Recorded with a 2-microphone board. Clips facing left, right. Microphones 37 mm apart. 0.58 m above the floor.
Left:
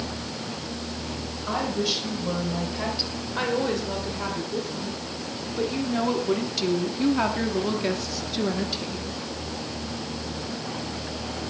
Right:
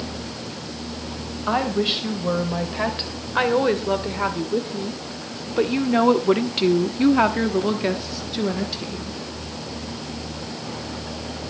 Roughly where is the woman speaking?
Right.